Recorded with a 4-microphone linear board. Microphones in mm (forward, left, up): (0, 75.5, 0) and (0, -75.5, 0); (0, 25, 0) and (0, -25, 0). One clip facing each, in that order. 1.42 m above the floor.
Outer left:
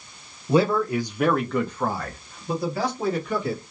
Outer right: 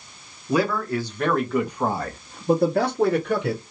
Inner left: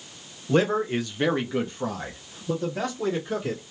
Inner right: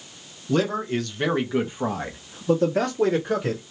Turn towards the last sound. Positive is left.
turn(degrees=-75)  # may be behind; listen again after turning